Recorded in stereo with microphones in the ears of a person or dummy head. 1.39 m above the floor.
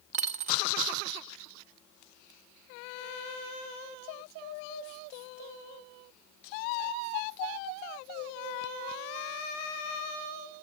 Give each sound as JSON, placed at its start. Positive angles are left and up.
{"t": 0.1, "sound": "a dropped coin", "side_deg": -45, "distance_m": 0.9}